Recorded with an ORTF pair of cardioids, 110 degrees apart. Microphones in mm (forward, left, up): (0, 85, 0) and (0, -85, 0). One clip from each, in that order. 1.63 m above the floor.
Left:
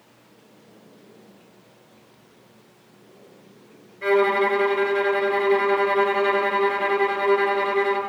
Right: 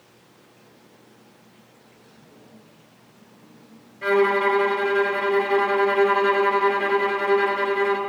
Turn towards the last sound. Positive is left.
turn(degrees=-5)